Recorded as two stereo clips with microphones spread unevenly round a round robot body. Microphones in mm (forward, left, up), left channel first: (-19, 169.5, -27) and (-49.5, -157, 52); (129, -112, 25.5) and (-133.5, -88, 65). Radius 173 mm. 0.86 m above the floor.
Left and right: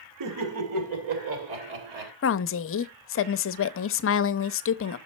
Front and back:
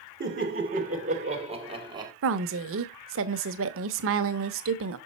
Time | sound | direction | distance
0.2 | laughter | 130° right | 2.5 m
2.2 | a woman speaking | 125° left | 0.6 m